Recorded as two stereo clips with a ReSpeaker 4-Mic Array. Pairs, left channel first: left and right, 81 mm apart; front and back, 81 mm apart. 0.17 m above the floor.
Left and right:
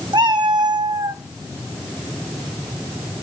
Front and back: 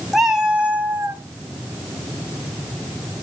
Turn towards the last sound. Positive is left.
turn(degrees=-130)